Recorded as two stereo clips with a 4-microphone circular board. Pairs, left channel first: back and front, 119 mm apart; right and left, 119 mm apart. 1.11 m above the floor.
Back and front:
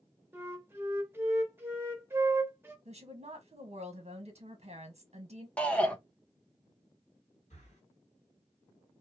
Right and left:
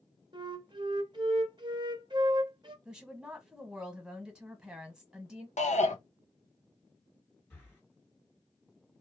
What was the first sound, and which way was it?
A flute, 65° left.